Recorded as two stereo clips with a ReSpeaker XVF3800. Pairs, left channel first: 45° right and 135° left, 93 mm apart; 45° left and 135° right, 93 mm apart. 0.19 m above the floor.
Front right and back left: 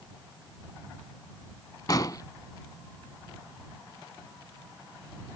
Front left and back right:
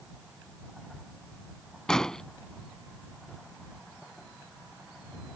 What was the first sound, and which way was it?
An explosion, 35° right.